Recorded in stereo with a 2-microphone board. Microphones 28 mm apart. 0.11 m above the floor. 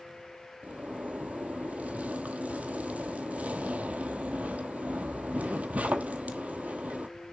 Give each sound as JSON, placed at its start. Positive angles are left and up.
{"t": 0.6, "sound": "a zipper", "side_deg": -70, "distance_m": 1.1}